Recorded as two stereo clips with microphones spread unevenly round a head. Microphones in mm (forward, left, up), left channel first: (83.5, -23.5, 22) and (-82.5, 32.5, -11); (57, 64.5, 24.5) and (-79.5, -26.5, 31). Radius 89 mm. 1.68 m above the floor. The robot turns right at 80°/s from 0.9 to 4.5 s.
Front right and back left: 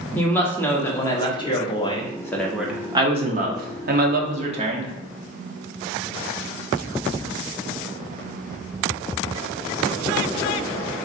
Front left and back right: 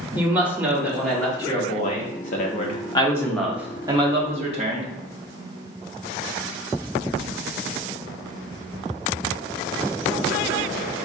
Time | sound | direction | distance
0.1 | a woman speaking | 75° right | 0.5 m